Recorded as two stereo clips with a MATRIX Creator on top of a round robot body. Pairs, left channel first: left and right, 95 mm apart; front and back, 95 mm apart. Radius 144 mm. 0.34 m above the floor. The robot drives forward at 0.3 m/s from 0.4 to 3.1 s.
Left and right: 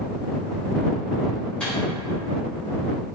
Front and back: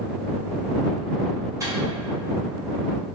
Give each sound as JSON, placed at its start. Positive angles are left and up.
{"t": 1.6, "sound": "a microwave", "azimuth_deg": 160, "distance_m": 1.3}